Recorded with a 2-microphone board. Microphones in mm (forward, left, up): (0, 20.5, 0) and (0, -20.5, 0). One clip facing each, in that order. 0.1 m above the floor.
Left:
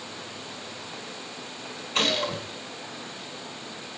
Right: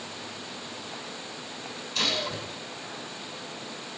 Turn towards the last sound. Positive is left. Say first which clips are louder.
# left 4 dB
turn(degrees=40)  # may be behind; listen again after turning